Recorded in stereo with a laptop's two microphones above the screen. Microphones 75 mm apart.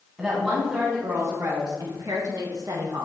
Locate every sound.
0.2 s a woman speaking: 15° right (ahead or behind), 1.4 m; by 3.1 s 55° right (ahead or behind), 1.4 m